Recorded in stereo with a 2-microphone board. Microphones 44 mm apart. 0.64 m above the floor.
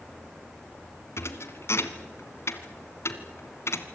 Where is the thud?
75° left (ahead or behind), 1.9 m.